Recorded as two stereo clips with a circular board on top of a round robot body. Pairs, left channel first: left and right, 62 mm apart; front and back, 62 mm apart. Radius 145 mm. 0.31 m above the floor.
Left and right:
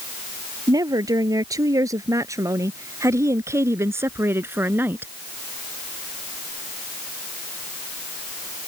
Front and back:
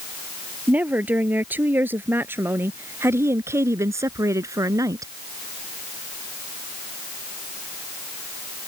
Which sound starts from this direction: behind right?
A woman speaking, at 0.7 s.